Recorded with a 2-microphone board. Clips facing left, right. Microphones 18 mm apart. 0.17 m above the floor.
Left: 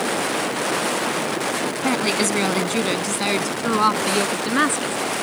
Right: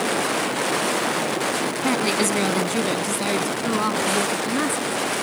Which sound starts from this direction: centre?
A woman speaking, at 1.8 s.